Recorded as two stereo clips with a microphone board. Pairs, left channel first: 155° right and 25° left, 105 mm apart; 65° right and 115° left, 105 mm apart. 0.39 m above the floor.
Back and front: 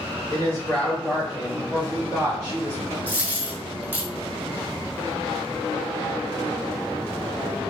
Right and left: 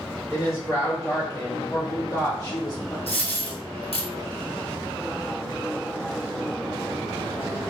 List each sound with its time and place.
0.3 s a woman speaking: 110° right, 1.7 m; by 3.0 s 45° right, 2.0 m
3.1 s a dropped coin: 50° right, 1.4 m